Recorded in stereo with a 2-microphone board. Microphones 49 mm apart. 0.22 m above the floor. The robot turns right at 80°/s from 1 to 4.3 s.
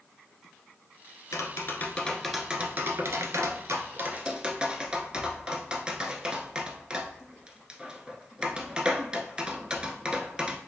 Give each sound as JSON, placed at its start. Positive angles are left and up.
{"t": 1.3, "sound": "tapping", "side_deg": 75, "distance_m": 0.5}